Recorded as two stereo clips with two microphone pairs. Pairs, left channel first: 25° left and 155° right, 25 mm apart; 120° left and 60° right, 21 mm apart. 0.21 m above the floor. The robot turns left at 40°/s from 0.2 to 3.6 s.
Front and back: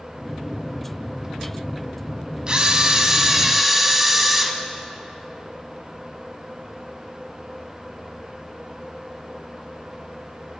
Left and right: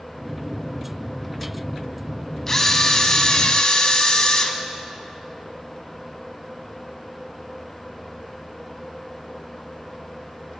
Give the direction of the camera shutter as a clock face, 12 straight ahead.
6 o'clock.